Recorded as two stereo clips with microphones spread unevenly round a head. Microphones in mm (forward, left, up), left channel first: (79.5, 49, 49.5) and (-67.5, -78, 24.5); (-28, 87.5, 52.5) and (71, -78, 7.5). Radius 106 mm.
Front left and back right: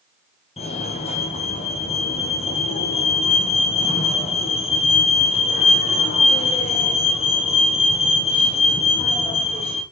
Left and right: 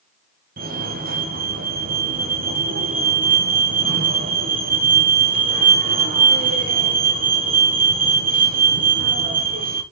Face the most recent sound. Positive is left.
turn(degrees=-20)